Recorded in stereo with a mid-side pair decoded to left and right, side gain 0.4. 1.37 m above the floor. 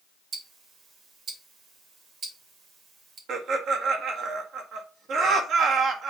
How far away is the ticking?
About 2.5 m.